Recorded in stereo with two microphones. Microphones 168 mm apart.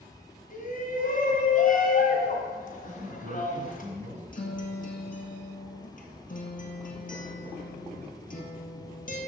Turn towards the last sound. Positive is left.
turn(degrees=55)  # may be behind; listen again after turning